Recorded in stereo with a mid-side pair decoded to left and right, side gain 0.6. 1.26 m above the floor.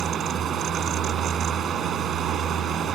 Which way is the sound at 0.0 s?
50° right.